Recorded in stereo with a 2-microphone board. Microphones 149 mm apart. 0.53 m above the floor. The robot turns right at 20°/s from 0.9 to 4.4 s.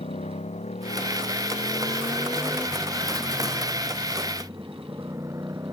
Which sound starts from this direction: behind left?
A motorcycle, at 0.0 s.